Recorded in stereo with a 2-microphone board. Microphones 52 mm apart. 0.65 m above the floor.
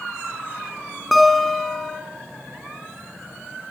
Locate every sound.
1.1 s a guitar: centre (ahead or behind), 3.5 m